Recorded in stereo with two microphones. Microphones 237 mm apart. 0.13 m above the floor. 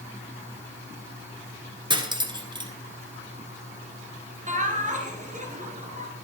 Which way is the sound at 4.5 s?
30° right (ahead or behind).